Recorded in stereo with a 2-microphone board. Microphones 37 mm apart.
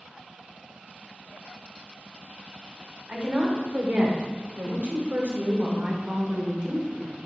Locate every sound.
3.1 s a woman speaking: 50° right (ahead or behind), 1.8 m; by 7.2 s 40° right (ahead or behind), 2 m